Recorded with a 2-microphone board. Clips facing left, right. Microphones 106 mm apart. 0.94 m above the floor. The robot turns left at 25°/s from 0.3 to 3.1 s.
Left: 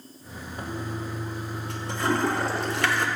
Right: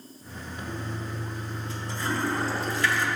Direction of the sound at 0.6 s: 40° left (ahead or behind).